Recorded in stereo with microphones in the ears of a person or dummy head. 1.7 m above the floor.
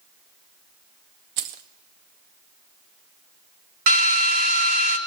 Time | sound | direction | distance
1.4 | keys jangling | 20° right (ahead or behind) | 0.6 m
3.9 | a drill | 50° right (ahead or behind) | 2 m